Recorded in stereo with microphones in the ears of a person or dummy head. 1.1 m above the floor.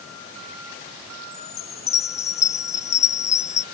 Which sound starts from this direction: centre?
A chime, at 1.3 s.